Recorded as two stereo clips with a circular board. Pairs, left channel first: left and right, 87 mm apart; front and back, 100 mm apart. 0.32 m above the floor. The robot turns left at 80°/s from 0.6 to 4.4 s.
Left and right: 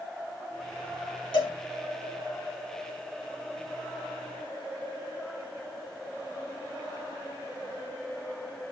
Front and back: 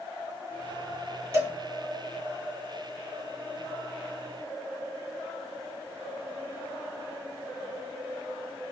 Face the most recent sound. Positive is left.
turn(degrees=-130)